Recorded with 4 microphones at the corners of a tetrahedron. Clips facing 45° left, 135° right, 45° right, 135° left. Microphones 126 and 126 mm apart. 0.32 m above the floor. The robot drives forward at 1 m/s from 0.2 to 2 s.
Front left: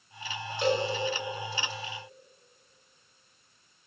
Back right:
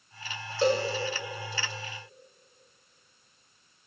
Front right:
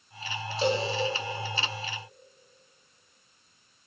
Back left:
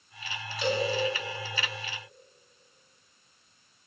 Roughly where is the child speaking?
No child speaking in this recording.